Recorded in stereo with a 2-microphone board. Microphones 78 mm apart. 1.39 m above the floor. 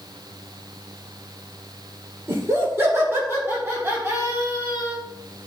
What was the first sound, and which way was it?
Laughter, 35° right (ahead or behind).